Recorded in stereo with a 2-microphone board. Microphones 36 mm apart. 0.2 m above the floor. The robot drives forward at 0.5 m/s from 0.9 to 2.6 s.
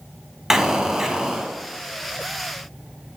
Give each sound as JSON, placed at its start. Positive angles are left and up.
{"t": 0.5, "sound": "an explosion", "side_deg": -10, "distance_m": 1.4}